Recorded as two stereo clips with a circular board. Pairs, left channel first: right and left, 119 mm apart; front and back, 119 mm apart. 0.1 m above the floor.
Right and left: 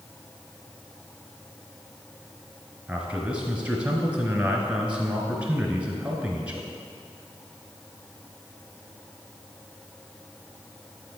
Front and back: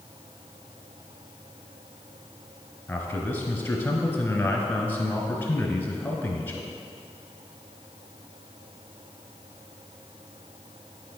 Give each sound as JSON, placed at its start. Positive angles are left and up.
{"t": 2.9, "sound": "a man speaking", "azimuth_deg": 35, "distance_m": 1.1}